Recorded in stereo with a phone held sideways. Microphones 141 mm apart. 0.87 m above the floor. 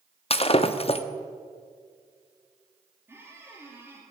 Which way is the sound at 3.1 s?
15° right (ahead or behind).